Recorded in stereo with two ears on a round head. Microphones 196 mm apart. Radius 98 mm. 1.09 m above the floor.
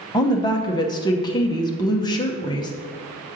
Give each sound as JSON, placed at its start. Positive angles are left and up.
{"t": 0.1, "sound": "a woman speaking", "side_deg": 20, "distance_m": 0.8}